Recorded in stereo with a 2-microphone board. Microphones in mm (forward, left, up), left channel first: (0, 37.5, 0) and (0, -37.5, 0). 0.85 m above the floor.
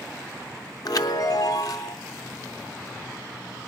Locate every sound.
0.8 s a chime: 55° left (ahead or behind), 0.8 m